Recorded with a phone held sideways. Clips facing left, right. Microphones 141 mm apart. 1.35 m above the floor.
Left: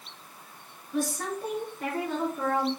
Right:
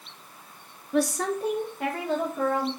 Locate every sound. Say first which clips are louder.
0.9 s a woman speaking: right 5 dB; 65° right (ahead or behind), 0.6 m; by 2.7 s 85° right, 2.5 m